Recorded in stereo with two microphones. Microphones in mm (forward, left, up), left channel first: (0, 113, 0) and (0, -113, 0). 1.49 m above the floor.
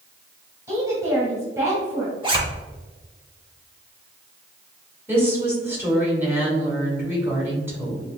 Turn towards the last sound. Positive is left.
turn(degrees=-10)  # may be behind; listen again after turning